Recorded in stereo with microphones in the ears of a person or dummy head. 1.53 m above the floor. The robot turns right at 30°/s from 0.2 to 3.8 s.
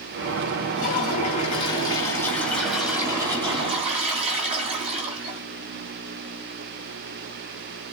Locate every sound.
0.8 s a toilet flushing: 120° left, 2.5 m; by 5.4 s 150° right, 2.5 m